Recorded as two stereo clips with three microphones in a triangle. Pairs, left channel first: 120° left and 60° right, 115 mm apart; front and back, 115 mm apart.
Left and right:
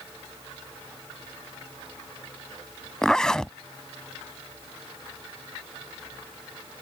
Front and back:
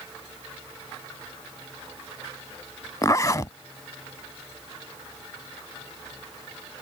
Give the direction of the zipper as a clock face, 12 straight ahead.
11 o'clock.